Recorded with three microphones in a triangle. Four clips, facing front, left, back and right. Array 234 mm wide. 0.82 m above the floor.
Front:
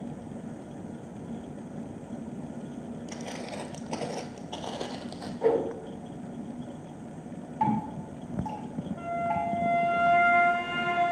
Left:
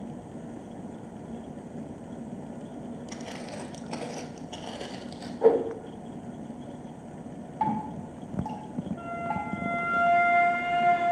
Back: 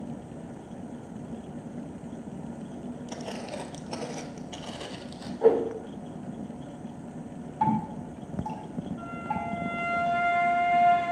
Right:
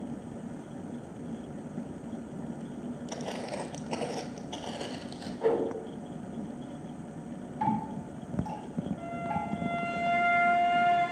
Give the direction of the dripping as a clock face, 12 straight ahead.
9 o'clock.